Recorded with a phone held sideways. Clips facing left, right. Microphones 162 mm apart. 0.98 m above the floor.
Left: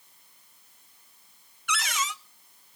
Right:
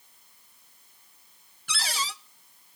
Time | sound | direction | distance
1.7 | a cupboard door | 30° right (ahead or behind) | 0.6 m